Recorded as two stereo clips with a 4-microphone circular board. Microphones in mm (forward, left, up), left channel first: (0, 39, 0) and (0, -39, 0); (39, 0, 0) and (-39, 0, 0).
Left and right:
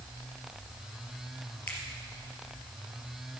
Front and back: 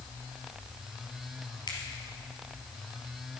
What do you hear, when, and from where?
1.7 s a finger snap: 25° left, 3 m